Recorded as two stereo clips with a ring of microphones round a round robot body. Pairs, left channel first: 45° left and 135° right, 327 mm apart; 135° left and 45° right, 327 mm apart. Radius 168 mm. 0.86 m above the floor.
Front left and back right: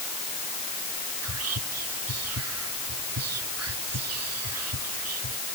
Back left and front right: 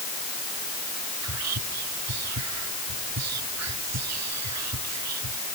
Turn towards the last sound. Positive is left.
turn(degrees=-90)